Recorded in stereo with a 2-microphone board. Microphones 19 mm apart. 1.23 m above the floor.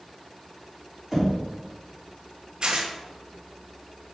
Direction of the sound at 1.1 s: 5° right (ahead or behind).